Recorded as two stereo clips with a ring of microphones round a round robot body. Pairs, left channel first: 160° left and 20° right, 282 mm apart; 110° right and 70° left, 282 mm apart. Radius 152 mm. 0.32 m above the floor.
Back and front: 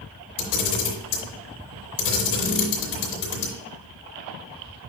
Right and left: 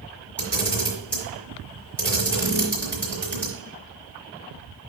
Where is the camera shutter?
165° left, 3.5 m.